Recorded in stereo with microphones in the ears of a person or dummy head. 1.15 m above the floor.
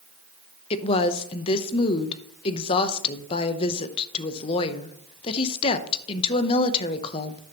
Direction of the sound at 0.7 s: 30° left (ahead or behind).